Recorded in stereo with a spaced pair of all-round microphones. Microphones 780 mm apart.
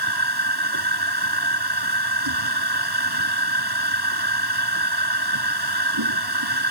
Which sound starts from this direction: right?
A machine running, at 0.0 s.